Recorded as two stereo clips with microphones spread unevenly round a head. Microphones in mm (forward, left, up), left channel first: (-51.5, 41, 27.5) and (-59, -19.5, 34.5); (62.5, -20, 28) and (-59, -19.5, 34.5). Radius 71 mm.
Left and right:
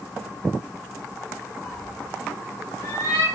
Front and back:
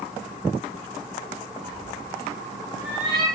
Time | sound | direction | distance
1.6 | a cat meowing | 135° left | 1.8 m